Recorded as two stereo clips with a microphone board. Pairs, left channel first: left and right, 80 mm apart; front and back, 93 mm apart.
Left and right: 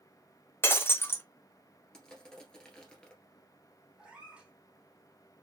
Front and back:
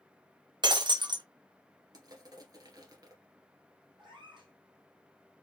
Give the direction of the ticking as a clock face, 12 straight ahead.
I don't hear ticking.